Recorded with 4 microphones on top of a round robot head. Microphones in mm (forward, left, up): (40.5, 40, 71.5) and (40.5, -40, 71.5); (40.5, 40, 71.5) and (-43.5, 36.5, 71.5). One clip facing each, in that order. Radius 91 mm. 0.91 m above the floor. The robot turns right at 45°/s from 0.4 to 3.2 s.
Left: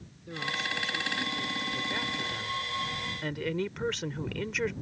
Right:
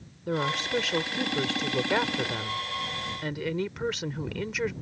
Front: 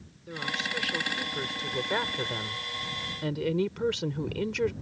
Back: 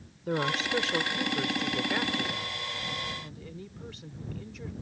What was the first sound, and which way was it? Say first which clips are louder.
A woman speaking: right 7 dB, back 5 dB; 130° right.